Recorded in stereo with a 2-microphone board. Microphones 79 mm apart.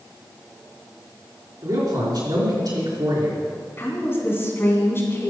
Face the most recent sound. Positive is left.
turn(degrees=30)  # may be behind; listen again after turning